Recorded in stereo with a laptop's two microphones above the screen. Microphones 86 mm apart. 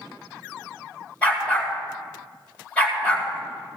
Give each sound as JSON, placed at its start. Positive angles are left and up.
{"t": 1.2, "sound": "a dog barking", "side_deg": 15, "distance_m": 2.5}